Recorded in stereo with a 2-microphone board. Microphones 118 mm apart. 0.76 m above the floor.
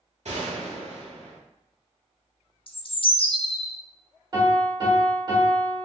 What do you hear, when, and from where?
0.2 s a gunshot: 75° right (ahead or behind), 1.0 m
2.7 s a bird: 50° left (ahead or behind), 0.5 m
4.3 s a piano: 40° right (ahead or behind), 1.4 m